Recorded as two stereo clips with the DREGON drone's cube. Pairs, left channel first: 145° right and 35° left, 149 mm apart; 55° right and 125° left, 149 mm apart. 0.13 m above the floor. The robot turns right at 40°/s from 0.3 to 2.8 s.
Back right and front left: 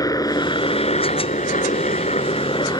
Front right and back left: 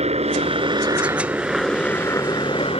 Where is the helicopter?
155° left; by 2.8 s 90° right.